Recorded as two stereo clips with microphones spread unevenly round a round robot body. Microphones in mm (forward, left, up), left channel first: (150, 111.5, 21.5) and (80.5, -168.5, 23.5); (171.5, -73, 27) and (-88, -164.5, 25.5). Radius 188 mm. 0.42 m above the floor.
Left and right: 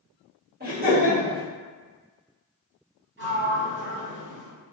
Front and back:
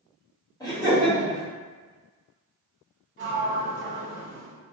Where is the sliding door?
145° right, 1.2 m.